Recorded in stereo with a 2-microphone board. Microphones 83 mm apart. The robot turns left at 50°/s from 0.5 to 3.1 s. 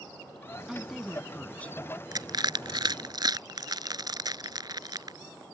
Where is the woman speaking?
5° right (ahead or behind); by 3.1 s 30° left (ahead or behind).